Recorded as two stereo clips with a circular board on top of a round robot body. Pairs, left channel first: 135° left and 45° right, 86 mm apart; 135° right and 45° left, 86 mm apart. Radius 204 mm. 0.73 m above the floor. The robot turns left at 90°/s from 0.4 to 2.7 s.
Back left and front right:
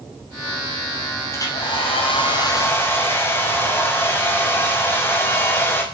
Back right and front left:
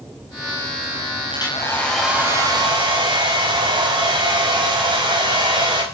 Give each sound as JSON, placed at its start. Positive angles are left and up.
{"t": 1.3, "sound": "a hair dryer", "azimuth_deg": -165, "distance_m": 5.5}